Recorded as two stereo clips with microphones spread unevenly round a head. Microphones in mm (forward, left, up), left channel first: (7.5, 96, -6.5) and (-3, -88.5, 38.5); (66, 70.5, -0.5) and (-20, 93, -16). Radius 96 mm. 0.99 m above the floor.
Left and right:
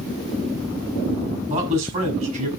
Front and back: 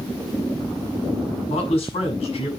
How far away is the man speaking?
About 7 m.